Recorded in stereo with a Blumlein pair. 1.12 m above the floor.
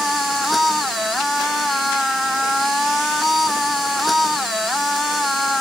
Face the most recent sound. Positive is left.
turn(degrees=5)